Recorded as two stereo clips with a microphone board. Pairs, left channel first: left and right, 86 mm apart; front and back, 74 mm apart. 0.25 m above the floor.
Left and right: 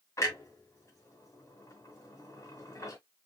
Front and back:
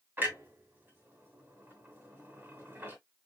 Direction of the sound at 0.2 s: 125° left.